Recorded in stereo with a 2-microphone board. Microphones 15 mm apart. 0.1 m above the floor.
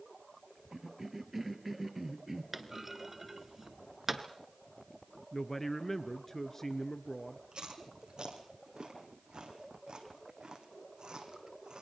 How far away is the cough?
About 2 m.